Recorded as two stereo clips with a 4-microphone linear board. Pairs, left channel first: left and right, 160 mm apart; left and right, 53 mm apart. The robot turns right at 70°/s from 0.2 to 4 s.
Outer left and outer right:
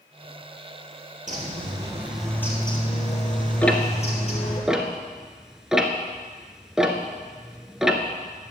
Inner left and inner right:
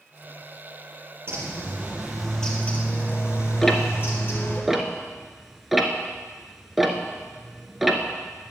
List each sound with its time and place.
1.3 s a bird: 65° right, 2.5 m; by 4.6 s 125° left, 2.5 m
3.6 s ticking: 10° left (ahead or behind), 1.1 m; by 8.5 s 5° right (ahead or behind), 1.1 m